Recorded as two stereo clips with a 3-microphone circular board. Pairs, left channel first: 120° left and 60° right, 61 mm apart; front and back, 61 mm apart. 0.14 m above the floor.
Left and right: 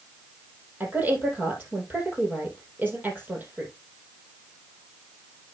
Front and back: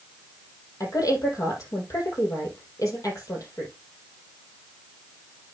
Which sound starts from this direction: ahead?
A woman speaking, at 0.8 s.